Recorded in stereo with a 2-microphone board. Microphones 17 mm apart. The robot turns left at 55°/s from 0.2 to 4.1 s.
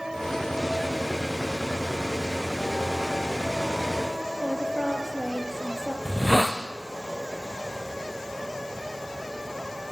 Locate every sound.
4.4 s a woman speaking: 35° right (ahead or behind), 3 m
6.0 s a hiss: 25° left (ahead or behind), 2 m